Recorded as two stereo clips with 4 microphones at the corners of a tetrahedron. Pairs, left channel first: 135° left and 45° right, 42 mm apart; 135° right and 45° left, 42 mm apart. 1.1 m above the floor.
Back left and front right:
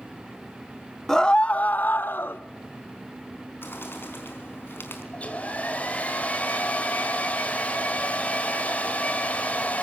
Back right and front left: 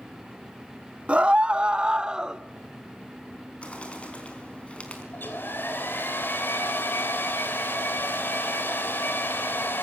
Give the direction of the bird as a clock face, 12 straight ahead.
7 o'clock.